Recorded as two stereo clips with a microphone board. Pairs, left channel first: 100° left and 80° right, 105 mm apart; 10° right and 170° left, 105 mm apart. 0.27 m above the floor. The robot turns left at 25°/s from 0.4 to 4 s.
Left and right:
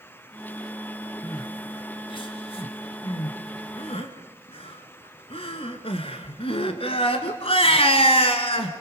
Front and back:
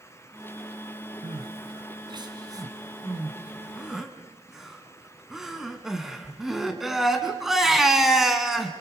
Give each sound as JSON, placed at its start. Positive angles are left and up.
{"t": 1.2, "sound": "crying", "azimuth_deg": 150, "distance_m": 2.0}